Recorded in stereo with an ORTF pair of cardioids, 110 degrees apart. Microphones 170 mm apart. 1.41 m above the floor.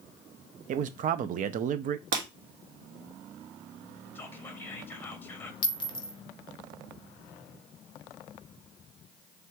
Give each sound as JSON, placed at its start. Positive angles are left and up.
{"t": 0.7, "sound": "a man speaking", "azimuth_deg": -55, "distance_m": 0.5}
{"t": 2.1, "sound": "breaking glass", "azimuth_deg": -60, "distance_m": 1.6}
{"t": 4.2, "sound": "whispering", "azimuth_deg": 10, "distance_m": 0.9}
{"t": 5.6, "sound": "a clink", "azimuth_deg": 30, "distance_m": 0.8}